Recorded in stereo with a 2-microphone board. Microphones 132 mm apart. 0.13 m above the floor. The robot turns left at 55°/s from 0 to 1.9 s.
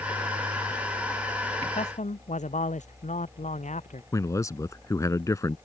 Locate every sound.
1.6 s a man speaking: 45° left (ahead or behind); by 4.0 s 60° left (ahead or behind)
4.1 s a man speaking: 25° left (ahead or behind)